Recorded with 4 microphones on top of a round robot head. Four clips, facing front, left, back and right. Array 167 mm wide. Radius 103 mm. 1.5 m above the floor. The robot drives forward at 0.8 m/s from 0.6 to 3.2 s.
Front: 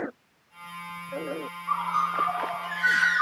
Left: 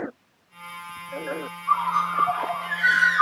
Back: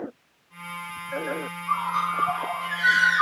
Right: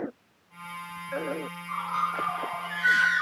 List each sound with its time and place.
1.7 s a bird: 85° left, 3 m; by 3.2 s 110° left, 3 m